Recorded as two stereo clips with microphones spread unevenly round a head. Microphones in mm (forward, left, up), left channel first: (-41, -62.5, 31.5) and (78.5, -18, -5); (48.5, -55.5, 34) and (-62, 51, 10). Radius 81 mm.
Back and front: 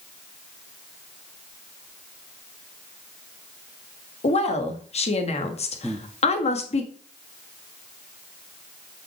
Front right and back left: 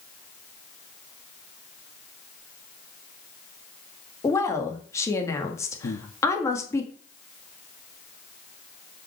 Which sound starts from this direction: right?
Breathing, at 5.8 s.